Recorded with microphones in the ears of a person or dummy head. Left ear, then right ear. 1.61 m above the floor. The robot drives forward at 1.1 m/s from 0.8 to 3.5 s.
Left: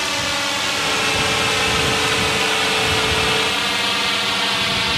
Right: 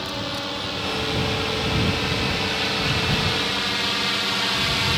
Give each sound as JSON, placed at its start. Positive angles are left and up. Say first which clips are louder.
{"t": 0.0, "sound": "a drone", "louder": "left 8 dB", "side_deg": 60}